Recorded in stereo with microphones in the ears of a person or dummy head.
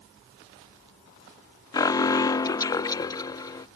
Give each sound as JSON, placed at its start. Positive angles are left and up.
{"t": 1.7, "sound": "an alarm", "side_deg": 25}